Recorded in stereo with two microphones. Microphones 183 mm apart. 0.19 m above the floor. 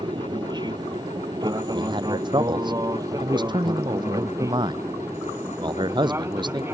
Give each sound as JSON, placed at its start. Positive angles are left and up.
{"t": 0.0, "sound": "an aircraft", "side_deg": -25}
{"t": 1.7, "sound": "a man speaking", "side_deg": -25}